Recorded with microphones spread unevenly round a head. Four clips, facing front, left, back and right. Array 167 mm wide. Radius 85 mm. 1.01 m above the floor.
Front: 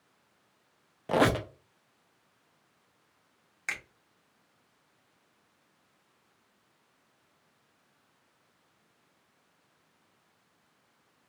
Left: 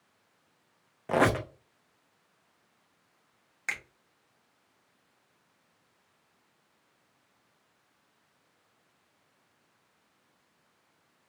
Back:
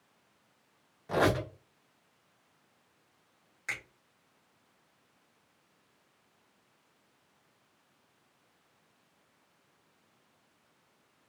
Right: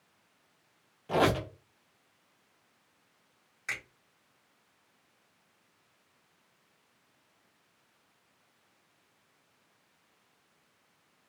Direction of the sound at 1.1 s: 40° left.